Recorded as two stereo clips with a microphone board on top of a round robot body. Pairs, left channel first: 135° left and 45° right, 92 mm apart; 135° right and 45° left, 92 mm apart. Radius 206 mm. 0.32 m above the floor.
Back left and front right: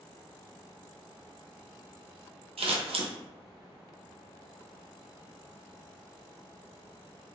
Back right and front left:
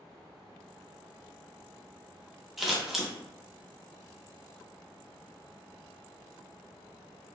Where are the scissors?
40° right, 0.5 m.